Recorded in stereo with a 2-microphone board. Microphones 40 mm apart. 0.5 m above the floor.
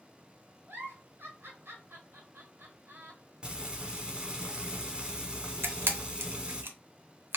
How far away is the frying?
About 0.9 m.